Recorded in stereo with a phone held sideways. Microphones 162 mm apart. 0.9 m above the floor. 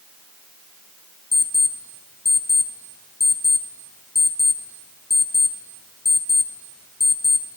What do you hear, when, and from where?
1.3 s an alarm clock: 85° left, 0.8 m